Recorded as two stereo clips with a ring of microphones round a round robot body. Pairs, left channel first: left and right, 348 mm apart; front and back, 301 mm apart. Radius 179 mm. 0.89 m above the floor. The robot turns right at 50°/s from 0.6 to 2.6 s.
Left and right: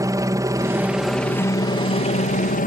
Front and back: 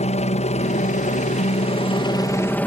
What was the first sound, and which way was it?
A helicopter, 25° right.